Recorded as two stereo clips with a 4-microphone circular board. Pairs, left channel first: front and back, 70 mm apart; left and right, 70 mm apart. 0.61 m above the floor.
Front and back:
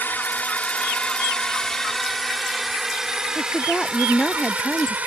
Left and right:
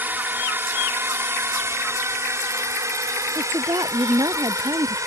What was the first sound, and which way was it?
A drone, 45° right.